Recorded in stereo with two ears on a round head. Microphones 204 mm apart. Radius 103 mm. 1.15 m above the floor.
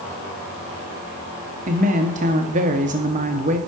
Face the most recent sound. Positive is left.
turn(degrees=-35)  # may be behind; listen again after turning